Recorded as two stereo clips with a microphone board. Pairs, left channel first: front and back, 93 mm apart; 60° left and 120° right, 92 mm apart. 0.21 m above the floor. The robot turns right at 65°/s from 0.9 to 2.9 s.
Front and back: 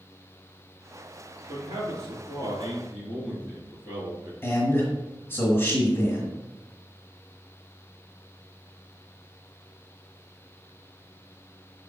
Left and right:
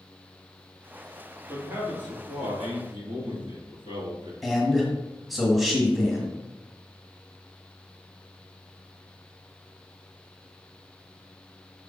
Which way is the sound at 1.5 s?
160° left.